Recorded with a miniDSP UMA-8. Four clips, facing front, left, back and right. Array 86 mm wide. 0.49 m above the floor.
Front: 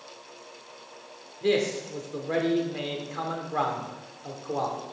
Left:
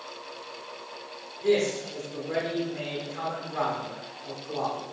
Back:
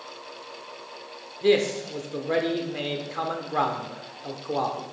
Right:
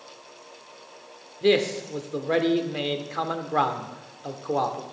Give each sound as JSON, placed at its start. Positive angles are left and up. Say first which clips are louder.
{"t": 1.4, "sound": "a man speaking", "louder": "right 3 dB, back 4 dB", "azimuth_deg": -110, "distance_m": 1.0}